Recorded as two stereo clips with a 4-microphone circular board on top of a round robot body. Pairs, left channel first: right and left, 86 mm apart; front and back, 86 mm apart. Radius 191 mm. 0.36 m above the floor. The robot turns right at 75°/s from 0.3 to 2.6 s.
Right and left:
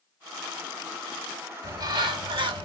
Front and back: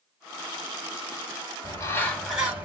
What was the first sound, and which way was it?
A bird, 45° left.